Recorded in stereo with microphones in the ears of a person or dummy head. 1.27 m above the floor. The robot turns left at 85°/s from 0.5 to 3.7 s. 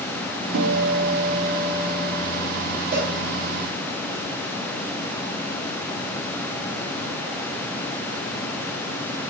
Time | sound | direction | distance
0.5 | a guitar | 75° right | 1.8 m
2.9 | a cowbell | 40° right (ahead or behind) | 3 m